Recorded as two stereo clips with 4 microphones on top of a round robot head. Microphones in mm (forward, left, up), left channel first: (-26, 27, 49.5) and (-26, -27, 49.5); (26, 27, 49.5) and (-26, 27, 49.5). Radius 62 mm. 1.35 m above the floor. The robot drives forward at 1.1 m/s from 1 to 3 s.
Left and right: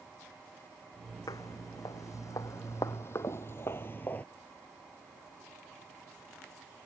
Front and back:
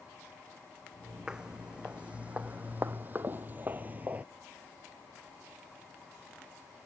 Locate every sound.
1.3 s footsteps: 105° left; by 4.2 s 135° left